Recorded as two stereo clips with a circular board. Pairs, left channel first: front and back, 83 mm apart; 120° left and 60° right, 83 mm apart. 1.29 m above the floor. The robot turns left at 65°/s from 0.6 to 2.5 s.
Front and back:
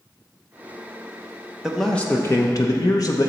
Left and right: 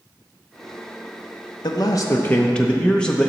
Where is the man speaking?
100° left, 0.7 m; by 3.3 s 40° left, 0.7 m.